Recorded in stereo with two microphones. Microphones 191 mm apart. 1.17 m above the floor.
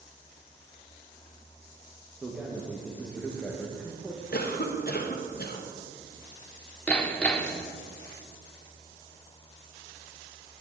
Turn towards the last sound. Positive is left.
turn(degrees=5)  # may be behind; listen again after turning